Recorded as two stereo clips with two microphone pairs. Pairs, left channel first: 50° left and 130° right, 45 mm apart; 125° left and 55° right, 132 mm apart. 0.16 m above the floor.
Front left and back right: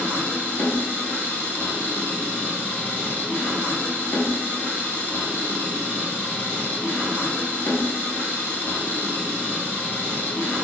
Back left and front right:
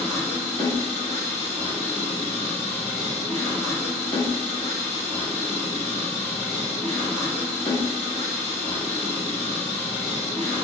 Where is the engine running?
55° left, 1.4 m.